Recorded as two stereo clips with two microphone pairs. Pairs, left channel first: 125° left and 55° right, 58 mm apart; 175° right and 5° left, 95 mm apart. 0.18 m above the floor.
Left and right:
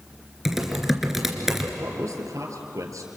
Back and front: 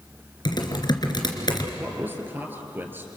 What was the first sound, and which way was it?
Typing on a keyboard, 140° right.